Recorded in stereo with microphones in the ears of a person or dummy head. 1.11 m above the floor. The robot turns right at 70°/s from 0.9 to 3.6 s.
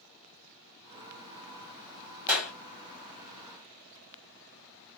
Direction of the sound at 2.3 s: 5° right (ahead or behind).